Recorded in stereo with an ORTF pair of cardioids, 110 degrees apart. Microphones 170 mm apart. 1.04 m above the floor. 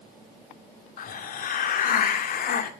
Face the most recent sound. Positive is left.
turn(degrees=55)